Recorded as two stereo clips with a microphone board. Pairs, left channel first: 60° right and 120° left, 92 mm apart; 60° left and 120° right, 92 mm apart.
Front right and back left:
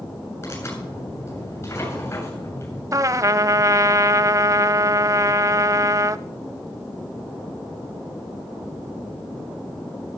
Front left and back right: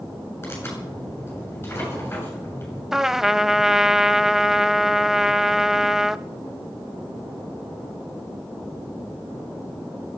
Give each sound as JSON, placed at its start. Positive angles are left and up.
{"t": 0.4, "sound": "tearing paper", "azimuth_deg": 0, "distance_m": 8.5}
{"t": 2.9, "sound": "a trumpet", "azimuth_deg": 155, "distance_m": 0.5}